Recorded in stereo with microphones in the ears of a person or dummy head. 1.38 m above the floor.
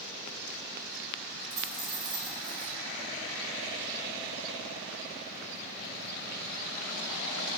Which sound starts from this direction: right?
A dropped coin, at 1.5 s.